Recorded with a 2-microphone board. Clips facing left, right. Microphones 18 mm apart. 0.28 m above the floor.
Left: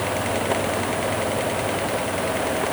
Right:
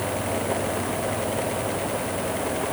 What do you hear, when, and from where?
Only background noise.